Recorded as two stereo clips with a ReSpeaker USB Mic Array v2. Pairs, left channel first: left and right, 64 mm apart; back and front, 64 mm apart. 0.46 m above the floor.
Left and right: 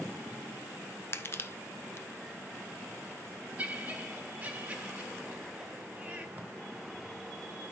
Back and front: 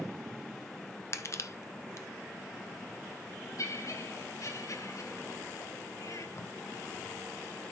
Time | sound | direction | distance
1.1 | crushing | 140° left | 1.1 m
3.6 | laughter | 160° right | 4 m
6.4 | tape being pulled | 150° right | 2.5 m